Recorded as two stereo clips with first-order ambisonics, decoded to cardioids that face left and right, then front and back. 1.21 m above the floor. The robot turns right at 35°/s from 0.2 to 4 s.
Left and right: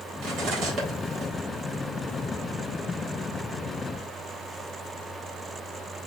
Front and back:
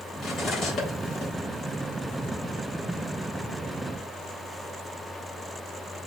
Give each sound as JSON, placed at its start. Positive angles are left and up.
{"t": 0.2, "sound": "cutlery clinking", "azimuth_deg": -70, "distance_m": 1.3}